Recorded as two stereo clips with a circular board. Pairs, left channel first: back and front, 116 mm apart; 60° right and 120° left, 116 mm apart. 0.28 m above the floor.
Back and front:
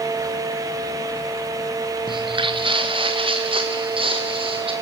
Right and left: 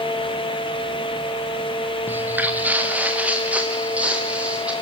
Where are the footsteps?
45° left, 1.3 m; by 4.7 s 40° left, 4.5 m.